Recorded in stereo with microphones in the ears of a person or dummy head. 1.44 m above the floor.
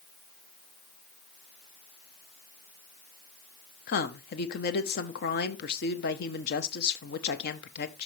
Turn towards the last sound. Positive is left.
turn(degrees=50)  # may be behind; listen again after turning